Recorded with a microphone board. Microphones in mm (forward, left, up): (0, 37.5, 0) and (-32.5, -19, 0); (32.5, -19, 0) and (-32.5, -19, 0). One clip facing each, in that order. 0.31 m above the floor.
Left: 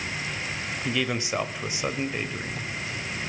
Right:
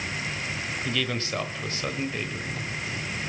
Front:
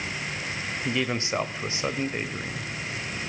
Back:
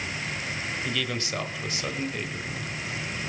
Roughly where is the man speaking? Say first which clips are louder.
Left 3 dB, front 6 dB; ahead.